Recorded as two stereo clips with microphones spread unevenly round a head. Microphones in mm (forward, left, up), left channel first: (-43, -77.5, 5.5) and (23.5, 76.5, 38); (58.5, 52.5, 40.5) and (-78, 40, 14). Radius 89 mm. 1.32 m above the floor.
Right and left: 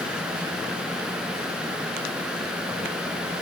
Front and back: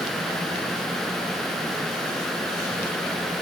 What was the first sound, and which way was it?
Only background noise.